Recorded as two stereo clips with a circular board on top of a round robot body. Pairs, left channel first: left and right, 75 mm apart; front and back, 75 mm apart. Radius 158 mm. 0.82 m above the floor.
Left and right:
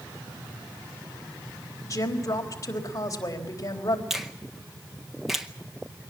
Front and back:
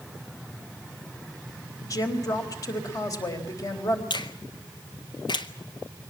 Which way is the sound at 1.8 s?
45° left.